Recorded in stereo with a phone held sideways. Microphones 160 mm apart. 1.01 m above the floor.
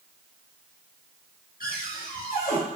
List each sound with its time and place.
1.6 s a cupboard door: 65° left (ahead or behind), 1.9 m